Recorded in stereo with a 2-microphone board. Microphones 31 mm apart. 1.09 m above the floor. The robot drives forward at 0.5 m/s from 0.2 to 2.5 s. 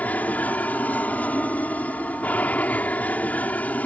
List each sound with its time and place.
0.0 s an aircraft: 55° left (ahead or behind)